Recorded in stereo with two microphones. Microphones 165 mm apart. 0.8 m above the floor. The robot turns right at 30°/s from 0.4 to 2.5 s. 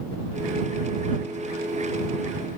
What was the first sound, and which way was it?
Only background noise.